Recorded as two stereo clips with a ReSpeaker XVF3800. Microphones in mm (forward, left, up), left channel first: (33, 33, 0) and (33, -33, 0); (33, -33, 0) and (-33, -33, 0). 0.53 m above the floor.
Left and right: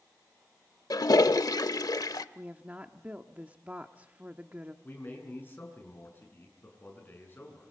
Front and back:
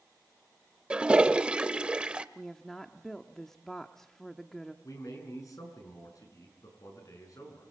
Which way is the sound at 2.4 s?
75° right.